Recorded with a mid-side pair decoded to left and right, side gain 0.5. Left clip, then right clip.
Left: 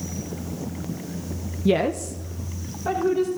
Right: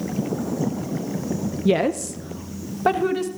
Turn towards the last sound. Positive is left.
turn(degrees=-75)